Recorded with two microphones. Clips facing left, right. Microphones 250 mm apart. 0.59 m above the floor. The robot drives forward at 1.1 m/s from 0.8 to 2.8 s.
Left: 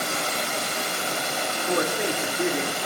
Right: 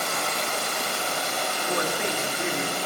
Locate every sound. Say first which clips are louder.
0.0 s running water: left 1 dB; 35° left (ahead or behind), 2.5 m; by 2.9 s 20° left (ahead or behind), 4.5 m
1.7 s a man speaking: left 4 dB; 50° left (ahead or behind), 1.7 m